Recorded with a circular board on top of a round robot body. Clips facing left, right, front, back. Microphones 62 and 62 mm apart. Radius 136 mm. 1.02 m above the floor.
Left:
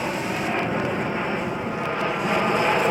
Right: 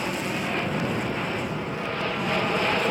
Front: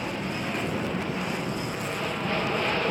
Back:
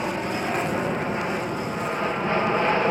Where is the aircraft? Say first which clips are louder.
Left 3 dB, back 5 dB; 150° left; by 2.9 s 140° left.